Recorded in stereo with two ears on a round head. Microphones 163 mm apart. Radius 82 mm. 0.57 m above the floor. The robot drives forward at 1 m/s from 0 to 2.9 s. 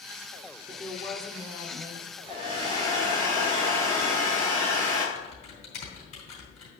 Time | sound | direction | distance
0.7 | a woman speaking | 20° left (ahead or behind) | 0.9 m
2.3 | a hair dryer | 30° right (ahead or behind) | 4 m
5.2 | typing on a keyboard | 35° left (ahead or behind) | 3.5 m